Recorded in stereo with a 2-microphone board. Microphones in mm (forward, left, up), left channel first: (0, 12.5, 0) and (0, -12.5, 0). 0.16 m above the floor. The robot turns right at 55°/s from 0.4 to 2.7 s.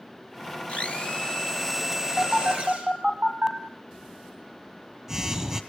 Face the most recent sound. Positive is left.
turn(degrees=-25)  # may be behind; listen again after turning